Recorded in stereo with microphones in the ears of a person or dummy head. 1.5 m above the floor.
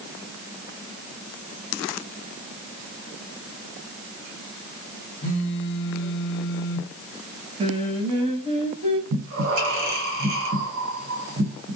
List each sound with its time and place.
5.2 s a phone buzzing: 60° left (ahead or behind), 1.0 m
7.6 s singing: 30° right (ahead or behind), 0.8 m
9.1 s breathing: 75° right (ahead or behind), 1.1 m